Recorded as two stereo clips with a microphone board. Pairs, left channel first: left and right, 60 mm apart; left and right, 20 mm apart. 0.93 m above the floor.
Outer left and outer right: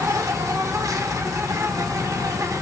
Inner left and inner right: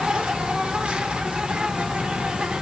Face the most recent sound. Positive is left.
turn(degrees=-65)  # may be behind; listen again after turning